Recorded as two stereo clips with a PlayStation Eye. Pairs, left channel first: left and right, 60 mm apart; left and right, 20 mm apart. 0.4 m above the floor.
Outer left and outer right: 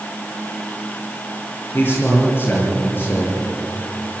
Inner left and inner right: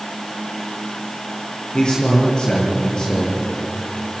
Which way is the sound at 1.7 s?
40° left (ahead or behind).